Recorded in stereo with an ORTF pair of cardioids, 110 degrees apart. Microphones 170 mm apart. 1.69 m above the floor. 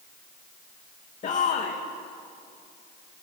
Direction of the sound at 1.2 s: 45° left.